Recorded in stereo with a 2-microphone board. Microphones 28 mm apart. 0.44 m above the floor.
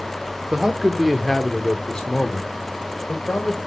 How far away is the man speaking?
About 1.1 m.